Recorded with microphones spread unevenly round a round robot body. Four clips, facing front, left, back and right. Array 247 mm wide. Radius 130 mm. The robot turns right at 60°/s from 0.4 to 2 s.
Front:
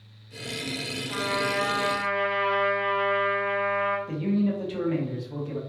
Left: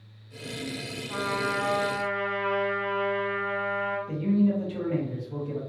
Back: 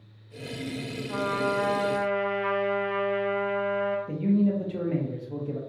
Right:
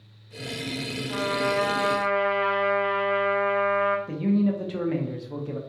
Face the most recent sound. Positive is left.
turn(degrees=-110)